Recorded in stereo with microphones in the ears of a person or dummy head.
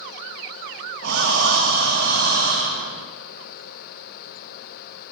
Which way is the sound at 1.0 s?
70° right (ahead or behind).